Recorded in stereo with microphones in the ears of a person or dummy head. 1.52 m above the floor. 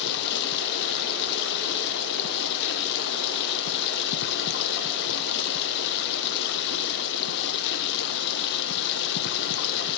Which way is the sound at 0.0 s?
65° left (ahead or behind).